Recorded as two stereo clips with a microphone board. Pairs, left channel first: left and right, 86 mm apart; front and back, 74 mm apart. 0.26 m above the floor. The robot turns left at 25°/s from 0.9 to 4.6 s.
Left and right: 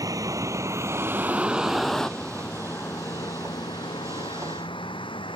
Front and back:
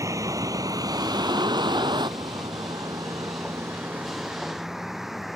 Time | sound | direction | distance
0.0 | a vehicle | 135° right | ?